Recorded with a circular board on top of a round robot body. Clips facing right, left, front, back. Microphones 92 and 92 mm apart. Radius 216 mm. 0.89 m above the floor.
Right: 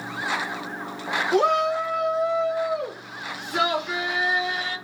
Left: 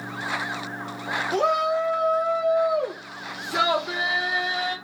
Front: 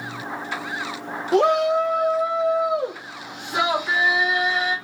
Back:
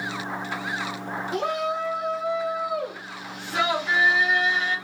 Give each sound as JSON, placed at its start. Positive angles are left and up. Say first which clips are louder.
{"t": 1.3, "sound": "a shout", "louder": "right 1 dB, front 10 dB", "azimuth_deg": -10, "distance_m": 0.8}